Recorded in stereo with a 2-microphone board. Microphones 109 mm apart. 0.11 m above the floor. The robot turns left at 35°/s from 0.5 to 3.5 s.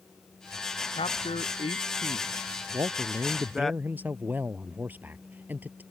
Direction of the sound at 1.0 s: 80° left.